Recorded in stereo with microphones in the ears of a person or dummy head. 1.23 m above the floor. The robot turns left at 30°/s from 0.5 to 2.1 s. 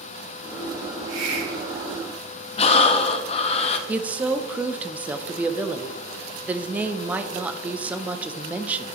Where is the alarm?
I don't hear an alarm.